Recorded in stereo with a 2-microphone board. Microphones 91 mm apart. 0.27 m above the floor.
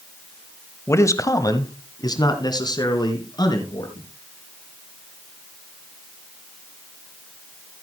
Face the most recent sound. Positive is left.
turn(degrees=50)  # may be behind; listen again after turning